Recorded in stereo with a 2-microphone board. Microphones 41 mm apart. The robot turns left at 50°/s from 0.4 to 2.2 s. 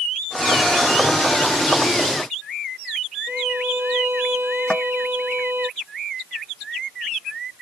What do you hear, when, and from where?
3.3 s a violin: 70° right (ahead or behind)
4.7 s tapping: 30° left (ahead or behind)